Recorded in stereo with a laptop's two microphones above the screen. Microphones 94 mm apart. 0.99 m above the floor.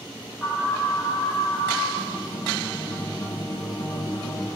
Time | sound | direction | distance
0.4 | an alarm | 15° left (ahead or behind) | 3 m
2.0 | a guitar | 40° left (ahead or behind) | 1.2 m